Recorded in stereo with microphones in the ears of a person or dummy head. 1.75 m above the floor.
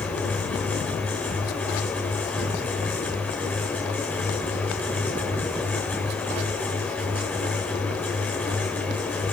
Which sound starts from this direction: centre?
A fan, at 0.0 s.